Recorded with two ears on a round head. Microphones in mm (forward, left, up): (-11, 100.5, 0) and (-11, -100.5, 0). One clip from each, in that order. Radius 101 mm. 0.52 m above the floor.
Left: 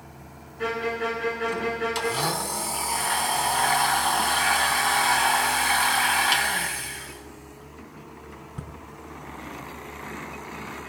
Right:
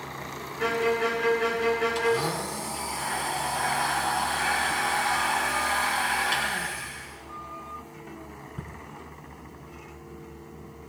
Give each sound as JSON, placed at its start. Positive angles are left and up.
{"t": 0.6, "sound": "a violin", "side_deg": -15, "distance_m": 4.0}
{"t": 1.9, "sound": "a blender", "side_deg": 35, "distance_m": 5.0}